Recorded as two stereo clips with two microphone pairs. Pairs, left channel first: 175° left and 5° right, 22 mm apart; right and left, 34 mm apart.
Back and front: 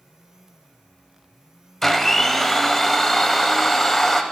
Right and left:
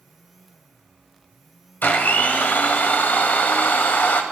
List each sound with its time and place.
1.8 s a blender: 110° right, 0.8 m